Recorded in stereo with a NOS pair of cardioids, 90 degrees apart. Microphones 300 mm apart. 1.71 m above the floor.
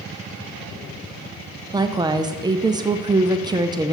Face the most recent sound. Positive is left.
turn(degrees=-15)